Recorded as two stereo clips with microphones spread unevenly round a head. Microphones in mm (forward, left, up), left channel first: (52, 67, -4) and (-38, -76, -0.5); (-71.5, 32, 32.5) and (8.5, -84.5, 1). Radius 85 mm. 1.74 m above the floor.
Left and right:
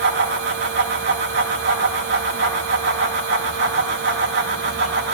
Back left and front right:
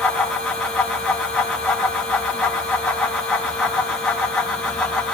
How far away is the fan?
About 4 m.